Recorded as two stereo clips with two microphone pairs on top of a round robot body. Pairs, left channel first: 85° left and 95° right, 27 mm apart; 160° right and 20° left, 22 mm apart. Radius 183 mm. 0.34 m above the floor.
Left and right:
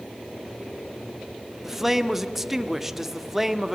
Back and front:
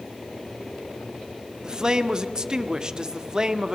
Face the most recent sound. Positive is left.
turn(degrees=-20)